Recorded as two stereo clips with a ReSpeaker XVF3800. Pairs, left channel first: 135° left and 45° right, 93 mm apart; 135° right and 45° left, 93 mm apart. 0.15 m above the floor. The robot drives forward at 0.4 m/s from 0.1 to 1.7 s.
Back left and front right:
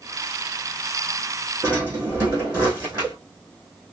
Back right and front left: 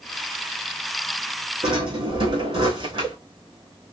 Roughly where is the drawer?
Ahead left.